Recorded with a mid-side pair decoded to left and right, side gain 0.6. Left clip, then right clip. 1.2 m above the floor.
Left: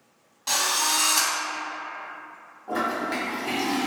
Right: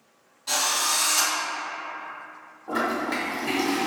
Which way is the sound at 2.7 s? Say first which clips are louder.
Right 1 dB; 5° right.